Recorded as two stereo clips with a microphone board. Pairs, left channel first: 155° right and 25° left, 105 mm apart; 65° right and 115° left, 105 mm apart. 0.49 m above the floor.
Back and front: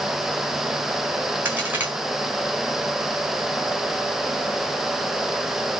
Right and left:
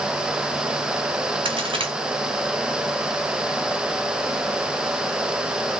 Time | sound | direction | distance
1.4 | a crack | 95° left | 2 m